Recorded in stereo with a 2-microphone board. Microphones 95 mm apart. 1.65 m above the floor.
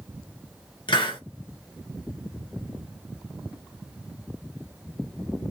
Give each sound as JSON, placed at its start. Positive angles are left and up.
{"t": 0.9, "sound": "a hiss", "side_deg": 60, "distance_m": 1.2}